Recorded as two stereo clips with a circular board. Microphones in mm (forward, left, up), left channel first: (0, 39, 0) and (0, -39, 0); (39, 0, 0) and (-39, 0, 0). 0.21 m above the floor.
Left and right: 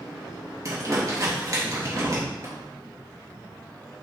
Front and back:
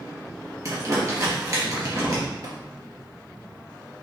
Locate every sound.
0.7 s crumpling: 135° right, 3 m
2.4 s tapping: 140° right, 2.5 m